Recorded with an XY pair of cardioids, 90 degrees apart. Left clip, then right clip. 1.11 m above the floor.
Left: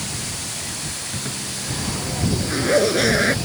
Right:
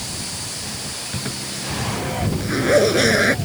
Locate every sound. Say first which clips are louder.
1.1 s a zipper: even; 25° right